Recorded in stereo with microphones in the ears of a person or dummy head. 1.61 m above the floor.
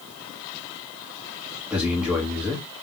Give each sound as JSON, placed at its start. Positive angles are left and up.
{"t": 1.7, "sound": "a man speaking", "side_deg": -5, "distance_m": 1.1}